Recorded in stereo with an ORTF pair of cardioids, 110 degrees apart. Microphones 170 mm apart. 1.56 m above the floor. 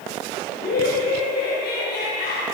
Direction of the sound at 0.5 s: 60° left.